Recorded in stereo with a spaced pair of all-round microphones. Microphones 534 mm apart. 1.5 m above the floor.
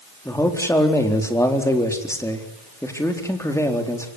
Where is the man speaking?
5° left (ahead or behind), 4 m.